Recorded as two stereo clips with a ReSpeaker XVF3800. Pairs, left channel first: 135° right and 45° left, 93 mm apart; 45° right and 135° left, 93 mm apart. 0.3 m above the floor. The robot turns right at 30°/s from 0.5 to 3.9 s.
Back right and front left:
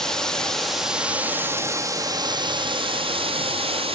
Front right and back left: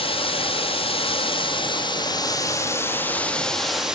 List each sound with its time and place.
0.0 s running water: 50° right, 1.3 m; by 3.9 s 50° left, 1.3 m